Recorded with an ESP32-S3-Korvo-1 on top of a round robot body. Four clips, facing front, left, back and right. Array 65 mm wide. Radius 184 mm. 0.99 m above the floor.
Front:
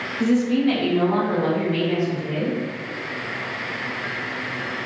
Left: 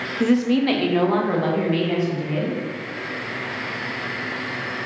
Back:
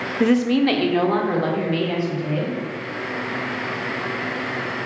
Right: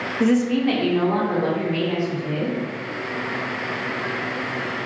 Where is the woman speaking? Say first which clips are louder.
Left 1 dB, back 2 dB; 170° right, 0.6 m; by 2.6 s 130° left, 2 m.